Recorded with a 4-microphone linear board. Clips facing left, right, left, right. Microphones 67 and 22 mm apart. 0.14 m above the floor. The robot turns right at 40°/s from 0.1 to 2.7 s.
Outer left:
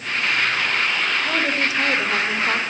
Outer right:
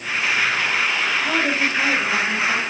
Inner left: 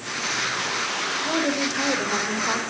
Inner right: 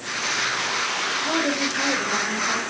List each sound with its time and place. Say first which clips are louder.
1.2 s a woman speaking: outer right 1 dB, inner left 1 dB; 10° right, 6.5 m; by 2.6 s 45° left, 6.5 m